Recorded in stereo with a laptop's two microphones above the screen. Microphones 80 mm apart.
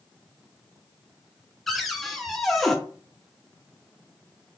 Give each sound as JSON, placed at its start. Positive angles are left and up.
{"t": 1.7, "sound": "a cupboard door", "side_deg": 0, "distance_m": 0.6}